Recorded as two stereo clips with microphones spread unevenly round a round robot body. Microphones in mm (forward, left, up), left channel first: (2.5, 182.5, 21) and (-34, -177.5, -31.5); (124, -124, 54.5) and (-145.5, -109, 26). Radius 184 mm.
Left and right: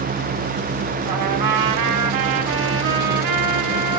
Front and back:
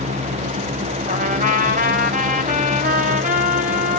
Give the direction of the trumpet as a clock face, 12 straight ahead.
4 o'clock.